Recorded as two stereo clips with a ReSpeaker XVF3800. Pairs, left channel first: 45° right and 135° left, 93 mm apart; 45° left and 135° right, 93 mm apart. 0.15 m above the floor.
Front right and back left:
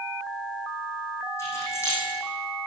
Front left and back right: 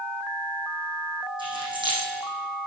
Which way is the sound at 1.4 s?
105° right.